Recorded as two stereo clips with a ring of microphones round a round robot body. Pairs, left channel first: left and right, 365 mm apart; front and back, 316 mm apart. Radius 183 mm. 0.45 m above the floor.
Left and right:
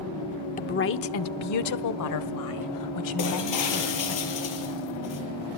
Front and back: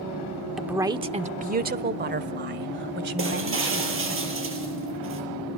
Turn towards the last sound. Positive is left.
turn(degrees=130)